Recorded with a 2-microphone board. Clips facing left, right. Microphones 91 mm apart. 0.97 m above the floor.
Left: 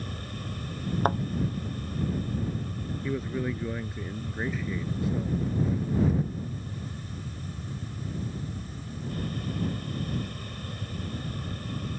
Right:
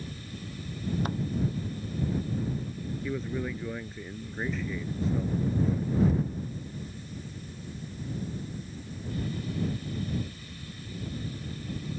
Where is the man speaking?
5° left (ahead or behind).